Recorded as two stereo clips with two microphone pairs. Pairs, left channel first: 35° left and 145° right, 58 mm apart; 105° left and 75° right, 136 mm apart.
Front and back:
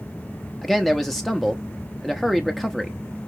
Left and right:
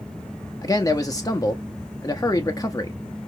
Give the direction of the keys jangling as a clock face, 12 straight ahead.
No keys jangling in this recording.